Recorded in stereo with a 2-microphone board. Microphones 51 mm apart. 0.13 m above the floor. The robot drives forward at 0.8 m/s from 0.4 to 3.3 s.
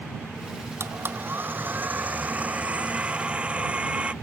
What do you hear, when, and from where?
0.8 s a blender: 55° right (ahead or behind); by 4.1 s 25° right (ahead or behind)